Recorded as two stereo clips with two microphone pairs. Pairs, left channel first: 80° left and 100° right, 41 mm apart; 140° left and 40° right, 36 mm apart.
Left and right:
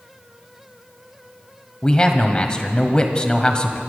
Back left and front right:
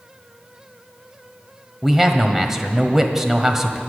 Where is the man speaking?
30° left, 1.3 m.